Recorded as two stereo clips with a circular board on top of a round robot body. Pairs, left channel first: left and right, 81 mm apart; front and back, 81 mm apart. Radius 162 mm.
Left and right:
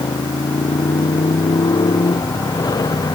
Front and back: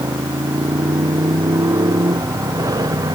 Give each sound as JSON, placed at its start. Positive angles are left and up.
{"t": 0.0, "sound": "a motorcycle", "azimuth_deg": 130}